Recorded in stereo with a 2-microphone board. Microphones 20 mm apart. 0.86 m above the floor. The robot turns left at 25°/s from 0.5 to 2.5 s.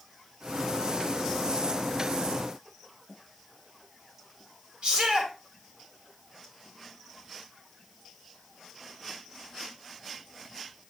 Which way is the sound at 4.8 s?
65° right (ahead or behind).